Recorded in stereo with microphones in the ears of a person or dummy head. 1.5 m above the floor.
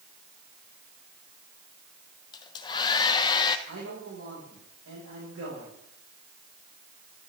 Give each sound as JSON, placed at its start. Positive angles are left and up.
{"t": 2.3, "sound": "a hair dryer", "side_deg": 30, "distance_m": 0.9}
{"t": 3.7, "sound": "a man speaking", "side_deg": -85, "distance_m": 6.0}